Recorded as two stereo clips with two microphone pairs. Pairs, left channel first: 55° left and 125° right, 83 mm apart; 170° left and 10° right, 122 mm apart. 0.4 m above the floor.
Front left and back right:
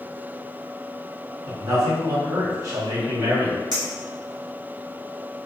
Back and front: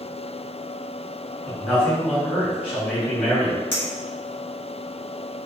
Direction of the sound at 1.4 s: 105° right.